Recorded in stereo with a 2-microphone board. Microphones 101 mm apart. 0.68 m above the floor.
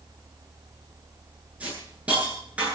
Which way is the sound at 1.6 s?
15° right (ahead or behind).